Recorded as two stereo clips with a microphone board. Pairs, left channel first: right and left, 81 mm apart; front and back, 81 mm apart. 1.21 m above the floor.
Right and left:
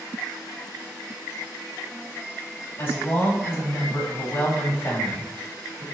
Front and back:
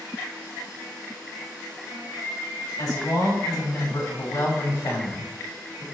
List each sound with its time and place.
2.8 s a woman speaking: 30° right, 3 m